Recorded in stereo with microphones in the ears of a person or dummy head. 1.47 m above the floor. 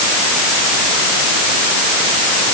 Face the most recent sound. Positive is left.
No sound to turn to.